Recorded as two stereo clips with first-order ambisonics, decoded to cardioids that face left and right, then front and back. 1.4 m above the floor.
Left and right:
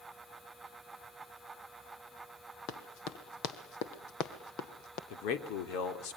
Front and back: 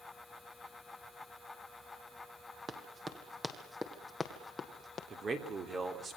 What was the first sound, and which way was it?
Running footsteps, 115° left.